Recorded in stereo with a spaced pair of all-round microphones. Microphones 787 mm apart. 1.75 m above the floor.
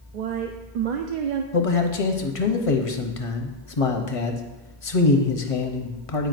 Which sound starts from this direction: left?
A man speaking, at 1.5 s.